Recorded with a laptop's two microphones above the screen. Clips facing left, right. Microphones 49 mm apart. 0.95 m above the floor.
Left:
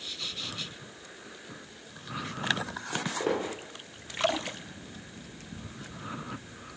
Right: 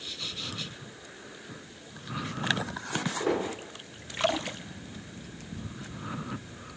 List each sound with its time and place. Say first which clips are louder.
2.9 s footsteps: right 1 dB; 35° left (ahead or behind), 1.2 m